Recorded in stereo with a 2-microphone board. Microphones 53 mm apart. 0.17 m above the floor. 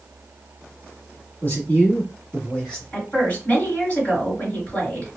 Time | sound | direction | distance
1.4 | a man speaking | 40° left (ahead or behind) | 1.3 m
2.9 | a woman speaking | 30° left (ahead or behind) | 1.9 m